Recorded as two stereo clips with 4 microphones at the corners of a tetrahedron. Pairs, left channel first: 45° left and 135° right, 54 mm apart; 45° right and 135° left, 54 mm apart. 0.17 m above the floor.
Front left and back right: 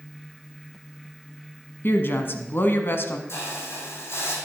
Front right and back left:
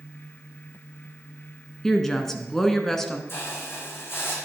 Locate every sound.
1.8 s a woman speaking: 35° left, 1.2 m
3.3 s a hiss: 5° left, 2.5 m